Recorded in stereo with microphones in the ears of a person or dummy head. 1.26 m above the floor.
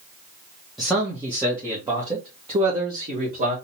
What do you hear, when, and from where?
0.8 s a man speaking: 5° right (ahead or behind), 1.3 m; by 3.5 s 40° right (ahead or behind), 2.5 m